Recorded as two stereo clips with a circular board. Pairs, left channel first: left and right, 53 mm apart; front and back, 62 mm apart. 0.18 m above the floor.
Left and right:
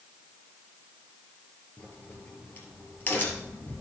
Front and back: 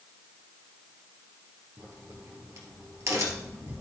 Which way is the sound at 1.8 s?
145° left.